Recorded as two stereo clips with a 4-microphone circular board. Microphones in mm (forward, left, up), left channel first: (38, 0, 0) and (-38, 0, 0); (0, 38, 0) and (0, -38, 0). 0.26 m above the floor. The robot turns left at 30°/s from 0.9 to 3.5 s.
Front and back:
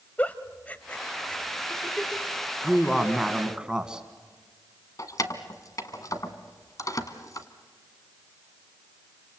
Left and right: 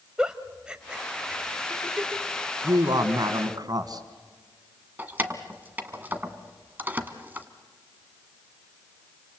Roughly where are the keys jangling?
Ahead right.